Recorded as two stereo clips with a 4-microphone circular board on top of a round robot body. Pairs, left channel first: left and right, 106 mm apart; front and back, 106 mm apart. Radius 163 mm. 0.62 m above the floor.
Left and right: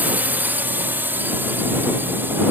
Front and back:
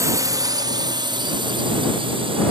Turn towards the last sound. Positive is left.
turn(degrees=-160)